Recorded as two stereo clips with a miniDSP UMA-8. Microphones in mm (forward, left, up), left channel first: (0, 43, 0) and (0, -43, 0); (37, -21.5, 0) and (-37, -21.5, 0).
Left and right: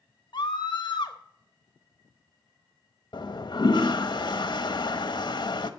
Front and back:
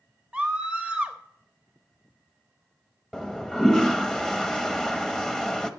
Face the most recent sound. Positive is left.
turn(degrees=80)